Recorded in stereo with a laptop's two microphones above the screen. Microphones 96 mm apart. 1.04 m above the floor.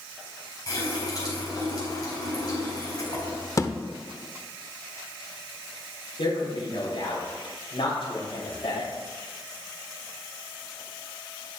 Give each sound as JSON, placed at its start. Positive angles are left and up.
{"t": 0.7, "sound": "a running tap", "side_deg": 45, "distance_m": 4.0}
{"t": 3.6, "sound": "a thud", "side_deg": 35, "distance_m": 0.7}
{"t": 6.2, "sound": "a man speaking", "side_deg": 65, "distance_m": 3.5}